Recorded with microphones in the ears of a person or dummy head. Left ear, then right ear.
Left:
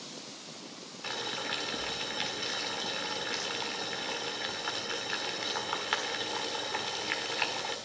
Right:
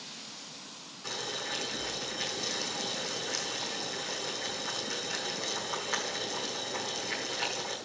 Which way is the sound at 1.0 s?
20° left (ahead or behind).